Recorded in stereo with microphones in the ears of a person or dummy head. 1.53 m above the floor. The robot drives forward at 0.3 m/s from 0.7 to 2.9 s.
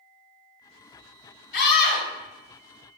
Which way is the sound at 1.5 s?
55° left (ahead or behind).